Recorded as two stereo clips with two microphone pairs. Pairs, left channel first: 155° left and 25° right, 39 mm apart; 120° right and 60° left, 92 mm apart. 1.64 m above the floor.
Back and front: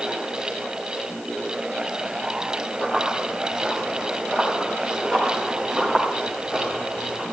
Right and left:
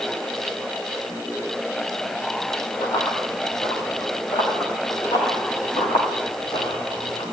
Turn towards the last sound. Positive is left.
turn(degrees=-135)